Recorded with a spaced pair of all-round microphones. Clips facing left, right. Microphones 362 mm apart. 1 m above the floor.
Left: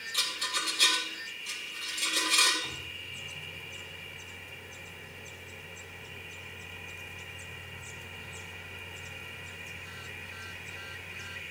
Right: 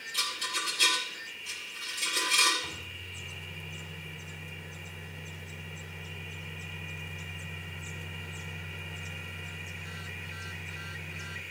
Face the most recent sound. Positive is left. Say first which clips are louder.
# even
turn(degrees=-65)  # may be behind; listen again after turning